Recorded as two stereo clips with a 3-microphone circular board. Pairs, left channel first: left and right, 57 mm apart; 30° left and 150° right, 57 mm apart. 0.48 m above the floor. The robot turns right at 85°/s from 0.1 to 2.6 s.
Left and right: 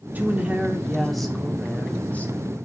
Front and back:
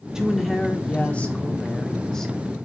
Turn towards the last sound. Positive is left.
turn(degrees=130)